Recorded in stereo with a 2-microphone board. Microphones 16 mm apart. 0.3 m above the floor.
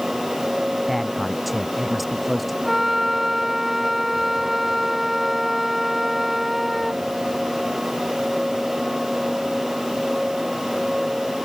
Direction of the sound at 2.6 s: 10° right (ahead or behind).